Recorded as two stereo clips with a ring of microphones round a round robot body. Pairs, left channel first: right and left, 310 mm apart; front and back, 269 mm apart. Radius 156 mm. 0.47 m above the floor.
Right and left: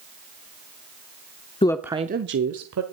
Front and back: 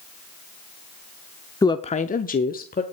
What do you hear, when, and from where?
1.6 s a woman speaking: 55° right, 0.7 m; by 2.8 s 55° left, 1.4 m